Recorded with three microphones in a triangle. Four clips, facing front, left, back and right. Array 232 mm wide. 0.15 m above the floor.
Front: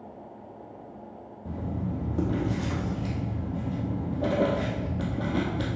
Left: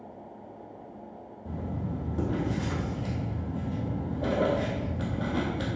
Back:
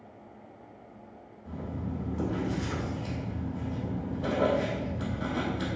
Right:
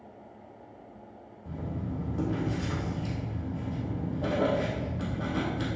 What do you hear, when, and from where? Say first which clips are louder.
1.4 s writing: left 1 dB, front 4 dB; straight ahead, 3.5 m